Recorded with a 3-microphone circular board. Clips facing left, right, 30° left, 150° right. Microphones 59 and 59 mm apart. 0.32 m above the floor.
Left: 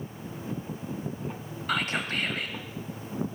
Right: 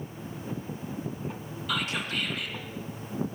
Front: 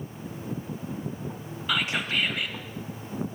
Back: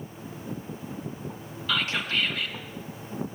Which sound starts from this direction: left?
Whispering, at 1.7 s.